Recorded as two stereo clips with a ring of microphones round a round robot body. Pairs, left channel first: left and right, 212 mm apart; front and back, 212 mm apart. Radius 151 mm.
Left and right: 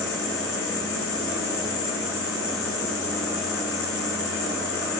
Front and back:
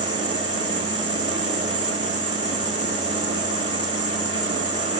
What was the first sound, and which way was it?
An insect, 110° left.